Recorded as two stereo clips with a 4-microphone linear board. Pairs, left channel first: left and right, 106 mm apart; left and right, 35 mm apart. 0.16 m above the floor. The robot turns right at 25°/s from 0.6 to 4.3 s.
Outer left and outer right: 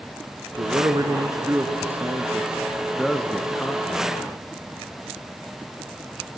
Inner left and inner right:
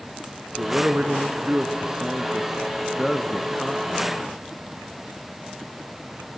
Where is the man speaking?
55° right, 1.8 m; by 4.4 s 35° left, 1.8 m.